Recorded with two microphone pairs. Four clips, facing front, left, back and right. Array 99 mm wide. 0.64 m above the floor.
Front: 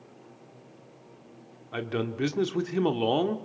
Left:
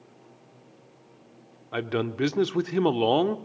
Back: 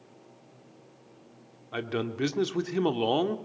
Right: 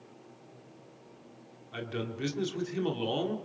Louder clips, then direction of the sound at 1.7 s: Left 9 dB, front 1 dB; 95° left.